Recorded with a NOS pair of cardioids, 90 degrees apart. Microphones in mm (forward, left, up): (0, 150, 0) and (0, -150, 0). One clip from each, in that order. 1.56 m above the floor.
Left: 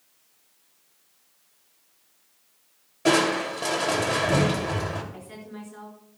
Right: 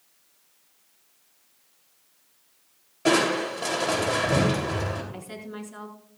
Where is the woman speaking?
45° right, 4.5 m.